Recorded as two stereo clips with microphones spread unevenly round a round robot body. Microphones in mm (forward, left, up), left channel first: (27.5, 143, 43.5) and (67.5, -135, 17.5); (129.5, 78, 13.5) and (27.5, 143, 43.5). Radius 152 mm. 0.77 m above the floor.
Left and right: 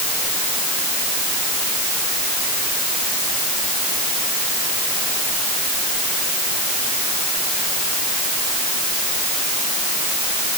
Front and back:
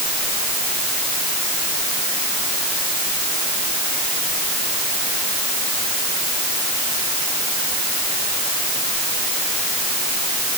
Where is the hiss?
I don't hear a hiss.